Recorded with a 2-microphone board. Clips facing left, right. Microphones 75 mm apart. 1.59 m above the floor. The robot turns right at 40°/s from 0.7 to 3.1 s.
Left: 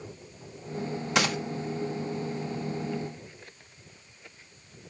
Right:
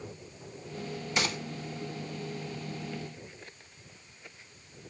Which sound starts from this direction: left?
A gunshot, at 1.1 s.